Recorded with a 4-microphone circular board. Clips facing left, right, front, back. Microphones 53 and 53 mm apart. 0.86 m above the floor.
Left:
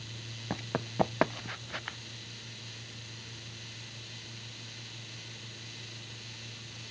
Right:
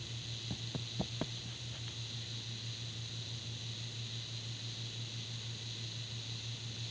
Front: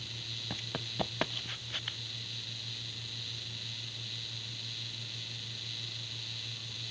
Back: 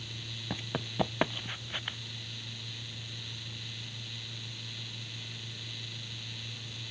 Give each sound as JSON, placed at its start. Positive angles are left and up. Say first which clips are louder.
{"t": 0.5, "sound": "running footsteps", "louder": "left 11 dB, back 5 dB", "azimuth_deg": 100}